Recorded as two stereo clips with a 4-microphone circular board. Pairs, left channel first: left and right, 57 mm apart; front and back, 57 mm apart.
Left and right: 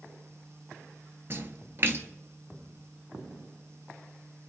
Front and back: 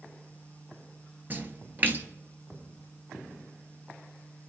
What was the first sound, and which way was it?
A splash, 130° right.